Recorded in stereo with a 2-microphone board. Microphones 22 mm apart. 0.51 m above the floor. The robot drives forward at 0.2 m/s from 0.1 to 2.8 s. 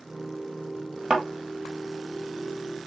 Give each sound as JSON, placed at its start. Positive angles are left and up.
{"t": 1.1, "sound": "a thud", "side_deg": -50, "distance_m": 1.7}